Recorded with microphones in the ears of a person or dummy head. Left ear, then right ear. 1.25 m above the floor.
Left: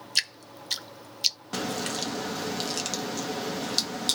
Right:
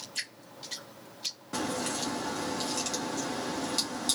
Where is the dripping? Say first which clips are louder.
Left 11 dB; 45° left (ahead or behind), 0.5 m.